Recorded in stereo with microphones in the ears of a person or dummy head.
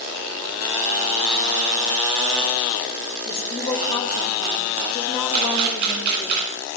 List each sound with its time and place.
3.2 s a woman speaking: 35° left (ahead or behind), 4 m
5.3 s a camera shutter: 55° right (ahead or behind), 3 m